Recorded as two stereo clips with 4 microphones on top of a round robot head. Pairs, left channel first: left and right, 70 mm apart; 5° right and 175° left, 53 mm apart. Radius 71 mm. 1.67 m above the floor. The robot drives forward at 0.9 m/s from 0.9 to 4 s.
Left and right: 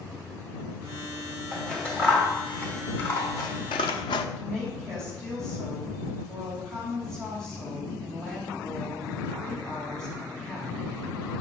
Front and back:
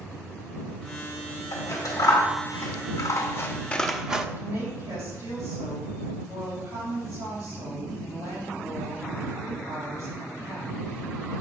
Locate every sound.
1.5 s scissors: 10° left, 2 m; by 4.3 s 100° left, 0.5 m
4.4 s a woman speaking: 170° left, 3.5 m